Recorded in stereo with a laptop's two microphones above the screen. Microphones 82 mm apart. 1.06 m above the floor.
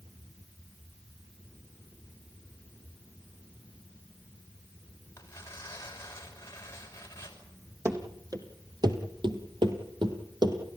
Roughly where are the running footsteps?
Right.